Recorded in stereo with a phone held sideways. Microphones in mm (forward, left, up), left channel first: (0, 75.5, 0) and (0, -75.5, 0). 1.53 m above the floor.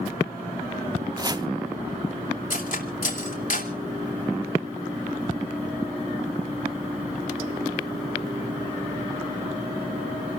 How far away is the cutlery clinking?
About 2.5 m.